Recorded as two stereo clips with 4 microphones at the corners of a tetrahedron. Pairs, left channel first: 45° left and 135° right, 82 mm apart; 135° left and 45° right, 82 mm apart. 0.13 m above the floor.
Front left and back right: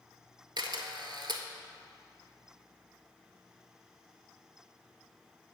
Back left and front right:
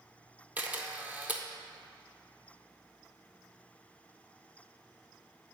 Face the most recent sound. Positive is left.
turn(degrees=-115)